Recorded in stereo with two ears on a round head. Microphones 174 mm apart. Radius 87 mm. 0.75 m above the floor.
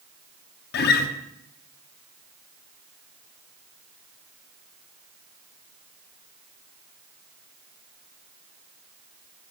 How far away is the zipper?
I don't hear a zipper.